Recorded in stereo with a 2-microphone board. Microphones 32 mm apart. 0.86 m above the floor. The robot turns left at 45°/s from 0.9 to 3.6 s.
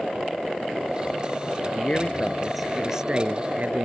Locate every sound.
1.7 s a man speaking: 40° left; by 3.9 s 45° right